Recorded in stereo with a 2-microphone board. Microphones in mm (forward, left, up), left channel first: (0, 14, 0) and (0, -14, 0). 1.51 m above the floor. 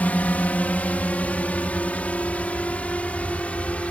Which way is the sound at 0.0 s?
60° left (ahead or behind).